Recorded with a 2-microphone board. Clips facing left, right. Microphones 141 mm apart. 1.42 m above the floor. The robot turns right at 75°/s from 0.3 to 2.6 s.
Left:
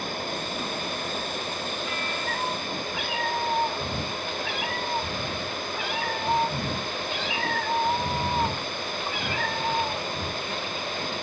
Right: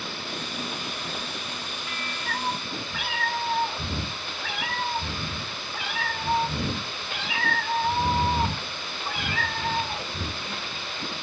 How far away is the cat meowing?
About 3 m.